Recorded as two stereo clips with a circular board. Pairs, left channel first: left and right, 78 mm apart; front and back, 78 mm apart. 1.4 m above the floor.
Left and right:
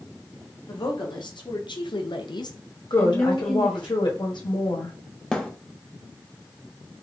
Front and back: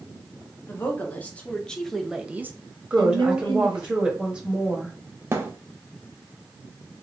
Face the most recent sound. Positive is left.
turn(degrees=165)